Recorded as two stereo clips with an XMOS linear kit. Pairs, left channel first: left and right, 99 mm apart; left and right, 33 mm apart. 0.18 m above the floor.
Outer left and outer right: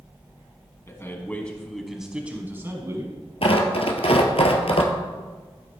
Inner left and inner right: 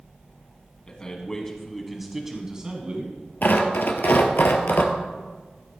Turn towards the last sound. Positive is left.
turn(degrees=75)  # may be behind; listen again after turning